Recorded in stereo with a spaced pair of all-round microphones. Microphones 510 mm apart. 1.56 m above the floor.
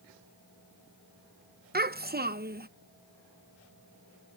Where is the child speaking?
20° right (ahead or behind).